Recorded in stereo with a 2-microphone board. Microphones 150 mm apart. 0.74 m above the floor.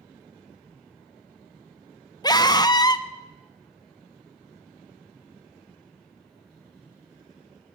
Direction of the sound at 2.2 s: 25° left (ahead or behind).